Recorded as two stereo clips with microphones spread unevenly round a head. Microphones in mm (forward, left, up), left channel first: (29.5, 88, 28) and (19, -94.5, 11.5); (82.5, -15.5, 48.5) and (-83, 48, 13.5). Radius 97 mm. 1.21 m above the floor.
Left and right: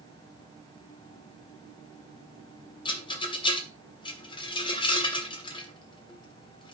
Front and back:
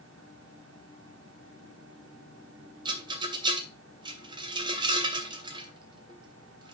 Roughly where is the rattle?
Left.